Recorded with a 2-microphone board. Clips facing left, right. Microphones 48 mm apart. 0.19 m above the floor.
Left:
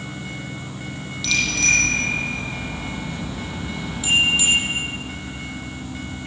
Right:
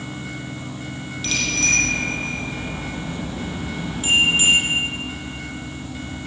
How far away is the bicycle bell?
About 5 m.